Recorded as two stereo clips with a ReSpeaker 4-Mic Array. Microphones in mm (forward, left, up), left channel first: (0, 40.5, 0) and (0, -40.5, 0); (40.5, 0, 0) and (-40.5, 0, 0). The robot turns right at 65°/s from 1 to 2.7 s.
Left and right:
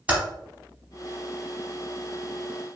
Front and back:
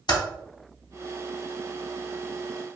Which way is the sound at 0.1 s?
20° right.